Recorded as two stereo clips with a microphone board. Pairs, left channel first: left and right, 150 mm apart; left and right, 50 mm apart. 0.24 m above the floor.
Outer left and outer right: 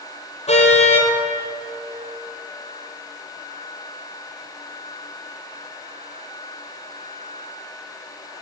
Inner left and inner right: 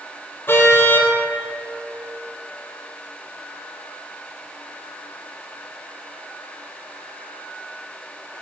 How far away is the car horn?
About 4.5 m.